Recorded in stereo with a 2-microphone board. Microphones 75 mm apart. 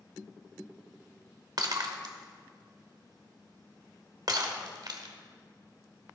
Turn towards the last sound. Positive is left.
turn(degrees=-60)  # may be behind; listen again after turning